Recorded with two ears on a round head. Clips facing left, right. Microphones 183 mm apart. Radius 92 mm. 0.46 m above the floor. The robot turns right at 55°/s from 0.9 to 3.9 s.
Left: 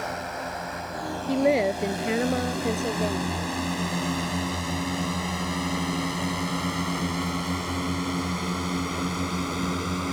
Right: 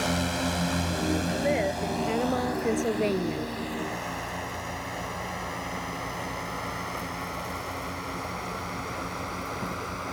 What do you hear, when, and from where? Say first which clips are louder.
0.0 s a drone: right 4 dB; 45° right (ahead or behind); by 10.1 s 45° left (ahead or behind)
1.3 s a woman speaking: left 5 dB; 110° left; by 3.5 s 130° right